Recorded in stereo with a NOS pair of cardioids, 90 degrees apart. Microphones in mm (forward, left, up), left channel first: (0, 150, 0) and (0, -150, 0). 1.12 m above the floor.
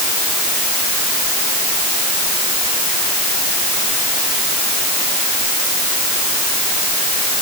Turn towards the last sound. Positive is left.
No sound to turn to.